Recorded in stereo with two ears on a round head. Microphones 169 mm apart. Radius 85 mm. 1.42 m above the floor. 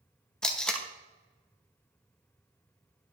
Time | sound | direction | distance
0.4 | tape being pulled | 5° left (ahead or behind) | 0.9 m